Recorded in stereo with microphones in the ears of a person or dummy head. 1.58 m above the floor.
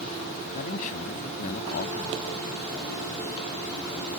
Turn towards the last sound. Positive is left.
turn(degrees=35)  # may be behind; listen again after turning